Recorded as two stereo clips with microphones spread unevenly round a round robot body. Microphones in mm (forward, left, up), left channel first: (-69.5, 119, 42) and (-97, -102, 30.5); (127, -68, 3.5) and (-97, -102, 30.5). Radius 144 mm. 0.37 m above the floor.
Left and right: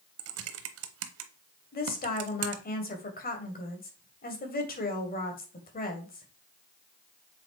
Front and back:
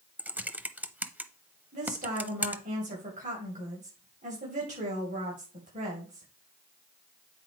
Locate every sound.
0.2 s typing on a keyboard: 85° right, 0.8 m
1.7 s a woman speaking: 125° left, 2.5 m